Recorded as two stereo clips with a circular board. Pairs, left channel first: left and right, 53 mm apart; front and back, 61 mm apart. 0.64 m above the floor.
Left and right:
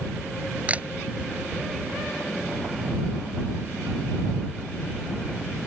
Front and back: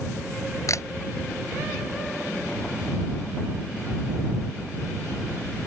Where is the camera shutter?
25° right.